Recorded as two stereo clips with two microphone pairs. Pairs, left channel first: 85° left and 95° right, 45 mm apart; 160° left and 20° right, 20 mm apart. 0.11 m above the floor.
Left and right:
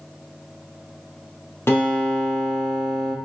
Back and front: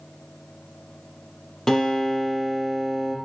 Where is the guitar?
100° left, 3.5 m.